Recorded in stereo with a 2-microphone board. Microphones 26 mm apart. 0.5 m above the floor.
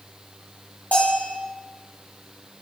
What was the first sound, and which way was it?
A bell, 70° left (ahead or behind).